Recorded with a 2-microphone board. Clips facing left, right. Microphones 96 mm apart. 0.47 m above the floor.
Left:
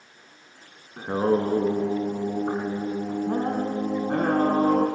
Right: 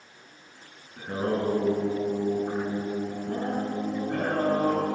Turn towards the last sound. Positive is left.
turn(degrees=80)